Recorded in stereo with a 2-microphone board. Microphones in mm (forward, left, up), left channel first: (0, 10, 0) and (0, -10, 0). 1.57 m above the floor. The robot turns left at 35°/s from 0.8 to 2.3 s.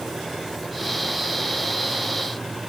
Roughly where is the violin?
I don't hear a violin.